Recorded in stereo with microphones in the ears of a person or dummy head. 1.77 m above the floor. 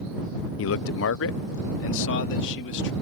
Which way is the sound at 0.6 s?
65° left (ahead or behind).